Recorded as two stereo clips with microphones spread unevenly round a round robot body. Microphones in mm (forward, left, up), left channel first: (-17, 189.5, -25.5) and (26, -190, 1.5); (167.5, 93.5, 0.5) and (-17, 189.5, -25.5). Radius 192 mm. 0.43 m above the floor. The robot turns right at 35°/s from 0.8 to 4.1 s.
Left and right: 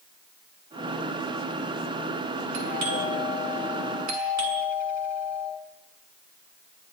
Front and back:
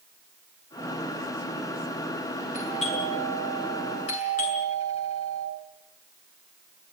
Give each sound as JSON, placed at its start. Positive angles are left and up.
{"t": 2.5, "sound": "a doorbell", "azimuth_deg": -90, "distance_m": 6.5}